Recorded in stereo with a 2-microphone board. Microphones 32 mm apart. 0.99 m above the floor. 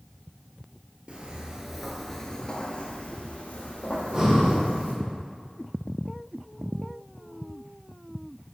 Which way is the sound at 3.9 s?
30° right (ahead or behind).